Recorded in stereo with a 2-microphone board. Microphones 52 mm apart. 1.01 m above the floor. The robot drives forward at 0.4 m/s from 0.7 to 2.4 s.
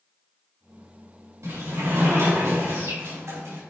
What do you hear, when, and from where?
1.4 s a sliding door: 80° right, 3 m; by 3.6 s 85° right, 3 m